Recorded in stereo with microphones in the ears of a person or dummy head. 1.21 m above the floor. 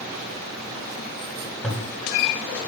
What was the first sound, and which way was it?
A toilet flushing, centre (ahead or behind).